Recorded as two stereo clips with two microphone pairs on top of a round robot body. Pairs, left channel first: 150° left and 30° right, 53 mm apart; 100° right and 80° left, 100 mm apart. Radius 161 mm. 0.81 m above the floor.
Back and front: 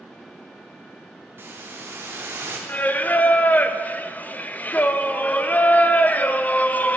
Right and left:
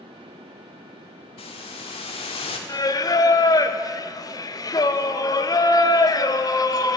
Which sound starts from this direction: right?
A hiss, at 1.4 s.